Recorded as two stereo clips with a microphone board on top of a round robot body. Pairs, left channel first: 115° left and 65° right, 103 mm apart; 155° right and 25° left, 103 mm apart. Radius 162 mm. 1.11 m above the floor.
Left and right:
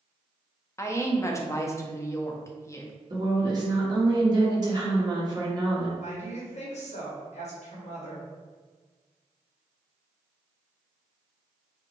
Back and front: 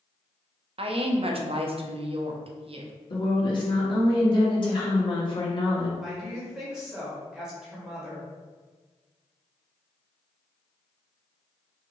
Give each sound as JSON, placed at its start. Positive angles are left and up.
{"t": 0.8, "sound": "a woman speaking", "azimuth_deg": 50, "distance_m": 0.8}
{"t": 3.1, "sound": "a woman speaking", "azimuth_deg": -115, "distance_m": 1.7}
{"t": 6.0, "sound": "a woman speaking", "azimuth_deg": 105, "distance_m": 1.8}